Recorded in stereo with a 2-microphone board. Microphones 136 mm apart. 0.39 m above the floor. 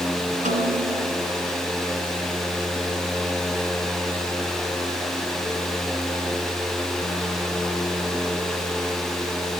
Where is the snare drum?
65° right (ahead or behind), 4.5 m.